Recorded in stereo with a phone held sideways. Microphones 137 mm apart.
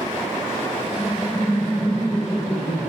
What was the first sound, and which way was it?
Laughter, 60° left (ahead or behind).